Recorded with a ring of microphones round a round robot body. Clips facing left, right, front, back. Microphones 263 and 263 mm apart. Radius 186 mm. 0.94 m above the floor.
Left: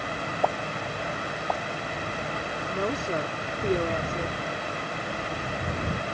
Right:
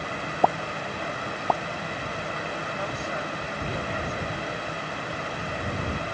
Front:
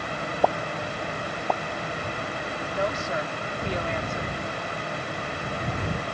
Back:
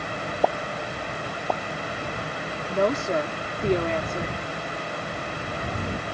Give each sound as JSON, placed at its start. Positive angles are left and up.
{"t": 0.4, "sound": "a pop", "azimuth_deg": -95}
{"t": 2.7, "sound": "a woman speaking", "azimuth_deg": 145}